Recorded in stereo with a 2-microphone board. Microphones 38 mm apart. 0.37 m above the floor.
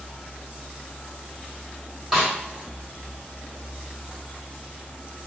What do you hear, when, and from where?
2.1 s a snare drum: 5° right (ahead or behind), 1.7 m